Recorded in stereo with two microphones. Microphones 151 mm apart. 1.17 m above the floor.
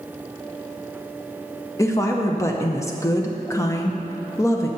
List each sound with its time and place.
1.8 s a woman speaking: 20° left (ahead or behind), 0.5 m